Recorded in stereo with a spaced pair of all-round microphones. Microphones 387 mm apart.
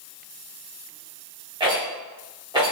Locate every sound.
1.6 s a rattle: 10° right (ahead or behind), 1.5 m